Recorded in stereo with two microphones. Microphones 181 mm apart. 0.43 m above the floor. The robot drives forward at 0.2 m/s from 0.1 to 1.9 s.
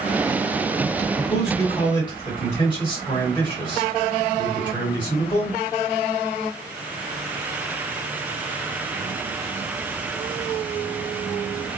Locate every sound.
1.2 s a man speaking: 25° left (ahead or behind), 1.8 m